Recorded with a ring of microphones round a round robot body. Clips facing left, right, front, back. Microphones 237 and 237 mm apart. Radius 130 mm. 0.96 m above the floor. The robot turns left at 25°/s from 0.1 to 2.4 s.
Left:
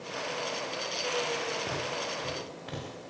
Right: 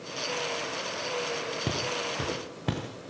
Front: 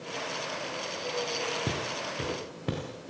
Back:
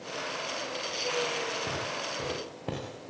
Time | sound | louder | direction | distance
1.7 | footsteps | right 3 dB, front 2 dB | 50° right | 6.5 m